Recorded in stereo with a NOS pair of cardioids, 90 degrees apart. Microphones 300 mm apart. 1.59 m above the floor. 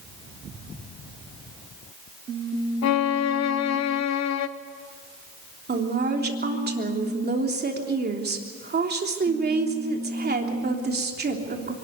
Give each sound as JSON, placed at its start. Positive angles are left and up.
{"t": 2.8, "sound": "a violin", "azimuth_deg": 65, "distance_m": 1.0}
{"t": 5.7, "sound": "a woman speaking", "azimuth_deg": -35, "distance_m": 3.5}